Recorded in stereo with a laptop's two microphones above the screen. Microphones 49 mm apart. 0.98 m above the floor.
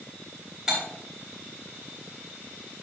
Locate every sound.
0.7 s cutlery clinking: 10° right (ahead or behind), 3.5 m